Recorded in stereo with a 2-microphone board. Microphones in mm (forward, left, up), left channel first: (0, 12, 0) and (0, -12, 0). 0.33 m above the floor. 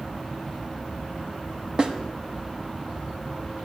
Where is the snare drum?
35° right (ahead or behind), 1.1 m.